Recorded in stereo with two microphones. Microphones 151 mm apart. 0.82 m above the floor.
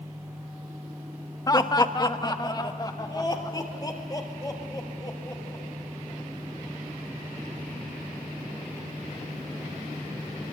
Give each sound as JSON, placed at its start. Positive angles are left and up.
{"t": 1.5, "sound": "laughter", "side_deg": 25, "distance_m": 1.1}